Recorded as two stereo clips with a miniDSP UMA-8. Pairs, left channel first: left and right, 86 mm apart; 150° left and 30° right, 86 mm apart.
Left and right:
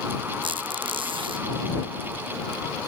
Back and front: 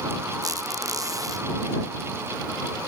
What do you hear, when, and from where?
0.4 s a squeak: 75° right